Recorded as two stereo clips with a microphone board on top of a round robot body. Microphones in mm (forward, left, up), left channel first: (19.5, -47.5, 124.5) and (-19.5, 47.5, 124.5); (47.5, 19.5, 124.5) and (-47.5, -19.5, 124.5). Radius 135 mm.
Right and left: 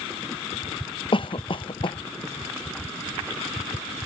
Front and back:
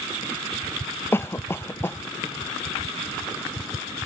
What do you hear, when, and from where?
1.1 s a cough: 40° right